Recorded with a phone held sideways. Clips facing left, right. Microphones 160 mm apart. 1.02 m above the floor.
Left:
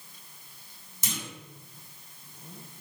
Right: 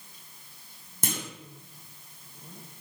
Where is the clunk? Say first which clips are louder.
Right 4 dB; 55° right (ahead or behind), 1.6 m.